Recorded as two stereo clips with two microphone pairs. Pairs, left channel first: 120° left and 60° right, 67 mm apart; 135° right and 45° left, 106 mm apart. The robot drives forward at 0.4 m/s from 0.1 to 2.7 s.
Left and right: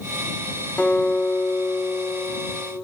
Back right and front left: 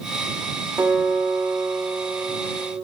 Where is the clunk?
No clunk in this recording.